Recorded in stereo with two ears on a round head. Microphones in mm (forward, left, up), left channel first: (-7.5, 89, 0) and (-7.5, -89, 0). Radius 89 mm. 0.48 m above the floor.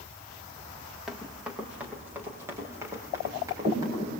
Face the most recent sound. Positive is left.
turn(degrees=-20)  # may be behind; listen again after turning